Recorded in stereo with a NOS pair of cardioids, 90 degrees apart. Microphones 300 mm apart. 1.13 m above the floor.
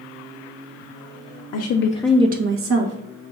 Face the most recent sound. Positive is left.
turn(degrees=-55)